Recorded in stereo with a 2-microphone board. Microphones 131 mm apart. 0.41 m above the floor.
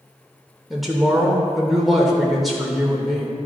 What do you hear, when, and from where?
0.7 s a woman speaking: centre (ahead or behind), 0.9 m